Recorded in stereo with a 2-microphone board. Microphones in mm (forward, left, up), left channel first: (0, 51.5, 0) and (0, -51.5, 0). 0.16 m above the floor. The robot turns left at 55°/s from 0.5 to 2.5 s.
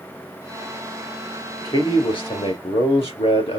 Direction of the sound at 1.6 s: 140° left.